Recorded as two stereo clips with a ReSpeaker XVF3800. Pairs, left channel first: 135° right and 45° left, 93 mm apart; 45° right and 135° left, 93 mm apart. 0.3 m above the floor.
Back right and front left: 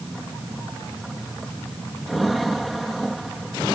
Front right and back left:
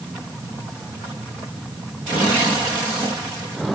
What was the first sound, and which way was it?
Only background noise.